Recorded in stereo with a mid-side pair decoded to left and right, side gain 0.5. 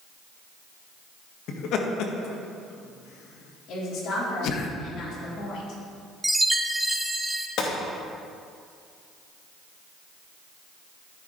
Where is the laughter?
70° left, 1.8 m.